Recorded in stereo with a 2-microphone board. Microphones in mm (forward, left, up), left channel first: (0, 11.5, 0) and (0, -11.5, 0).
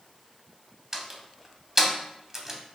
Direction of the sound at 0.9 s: 20° right (ahead or behind).